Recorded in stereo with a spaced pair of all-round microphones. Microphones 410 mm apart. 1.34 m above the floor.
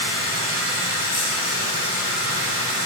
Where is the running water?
35° right (ahead or behind), 2.5 m.